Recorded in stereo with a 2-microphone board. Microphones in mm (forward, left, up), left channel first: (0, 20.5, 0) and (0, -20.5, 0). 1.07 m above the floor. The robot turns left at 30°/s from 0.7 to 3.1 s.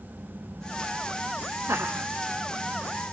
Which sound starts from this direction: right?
Laughter, at 1.7 s.